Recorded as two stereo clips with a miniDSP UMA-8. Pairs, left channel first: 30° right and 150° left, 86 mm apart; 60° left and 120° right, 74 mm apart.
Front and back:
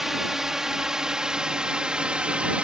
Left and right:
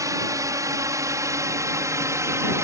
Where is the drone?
125° right; by 2.6 s 140° right.